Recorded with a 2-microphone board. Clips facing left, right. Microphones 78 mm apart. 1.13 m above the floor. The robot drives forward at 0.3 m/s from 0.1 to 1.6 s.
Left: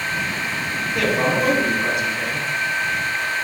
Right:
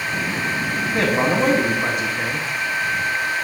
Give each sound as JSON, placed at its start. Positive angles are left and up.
{"t": 0.9, "sound": "a man speaking", "side_deg": -30, "distance_m": 0.7}